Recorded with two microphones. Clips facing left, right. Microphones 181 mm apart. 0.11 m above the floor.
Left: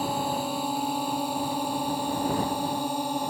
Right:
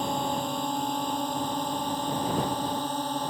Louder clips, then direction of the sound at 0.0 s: Left 1 dB; 5° left (ahead or behind).